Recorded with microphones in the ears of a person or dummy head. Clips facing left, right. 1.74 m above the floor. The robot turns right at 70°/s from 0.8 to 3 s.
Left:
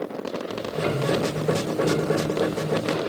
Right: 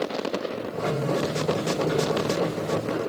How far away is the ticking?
About 2.5 m.